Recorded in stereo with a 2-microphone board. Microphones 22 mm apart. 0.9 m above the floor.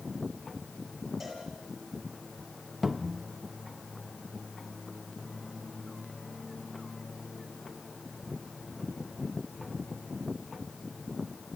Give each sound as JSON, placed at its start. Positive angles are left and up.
{"t": 1.2, "sound": "a cowbell", "side_deg": 0, "distance_m": 9.0}
{"t": 2.8, "sound": "a cupboard door", "side_deg": -10, "distance_m": 1.3}